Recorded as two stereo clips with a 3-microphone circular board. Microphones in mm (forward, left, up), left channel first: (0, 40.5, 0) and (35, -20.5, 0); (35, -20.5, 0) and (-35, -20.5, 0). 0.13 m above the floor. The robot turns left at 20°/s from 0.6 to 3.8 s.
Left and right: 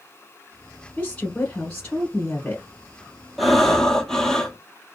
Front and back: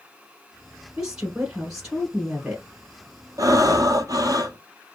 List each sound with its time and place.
1.0 s a woman speaking: 145° left, 1.1 m; by 2.6 s 110° left, 1.1 m
3.4 s breathing: 150° right, 0.6 m; by 4.6 s 160° right, 0.6 m